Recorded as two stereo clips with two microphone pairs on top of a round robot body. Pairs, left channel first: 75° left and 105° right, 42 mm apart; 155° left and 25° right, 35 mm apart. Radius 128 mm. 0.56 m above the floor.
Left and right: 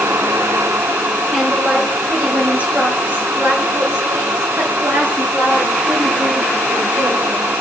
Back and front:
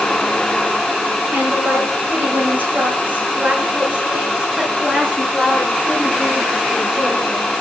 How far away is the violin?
No violin in this recording.